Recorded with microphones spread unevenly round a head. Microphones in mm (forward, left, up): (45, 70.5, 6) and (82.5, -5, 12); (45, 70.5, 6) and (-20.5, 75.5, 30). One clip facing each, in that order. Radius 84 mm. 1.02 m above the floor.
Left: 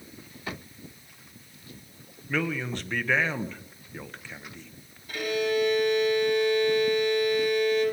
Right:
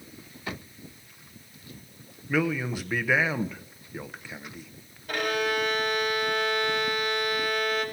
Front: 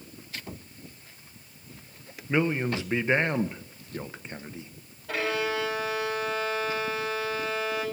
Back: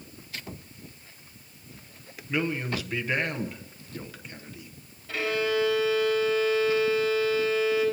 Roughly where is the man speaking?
Ahead.